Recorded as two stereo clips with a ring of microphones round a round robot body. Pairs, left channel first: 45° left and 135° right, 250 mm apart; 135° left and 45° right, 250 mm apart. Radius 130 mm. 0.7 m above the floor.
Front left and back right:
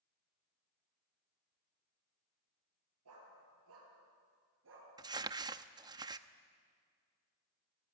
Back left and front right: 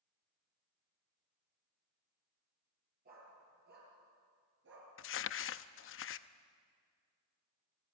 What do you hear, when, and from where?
3.0 s a dog barking: 100° right, 6.5 m; by 4.9 s 90° right, 5 m
5.0 s crumpling: 155° left, 0.7 m